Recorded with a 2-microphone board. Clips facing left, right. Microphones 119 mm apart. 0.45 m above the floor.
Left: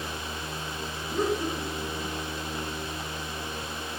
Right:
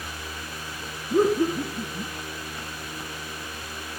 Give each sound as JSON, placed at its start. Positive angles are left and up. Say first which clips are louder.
{"t": 1.1, "sound": "laughter", "louder": "right 7 dB", "side_deg": -45, "distance_m": 3.0}